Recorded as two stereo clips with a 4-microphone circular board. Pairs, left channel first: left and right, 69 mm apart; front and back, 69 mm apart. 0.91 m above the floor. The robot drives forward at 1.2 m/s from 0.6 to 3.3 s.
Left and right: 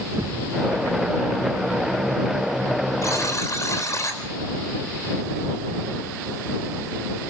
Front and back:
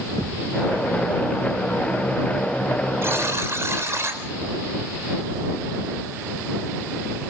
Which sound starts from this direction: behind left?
A buzzer, at 3.0 s.